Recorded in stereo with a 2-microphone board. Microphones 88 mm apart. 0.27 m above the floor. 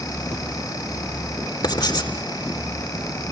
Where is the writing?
55° left (ahead or behind), 4 m.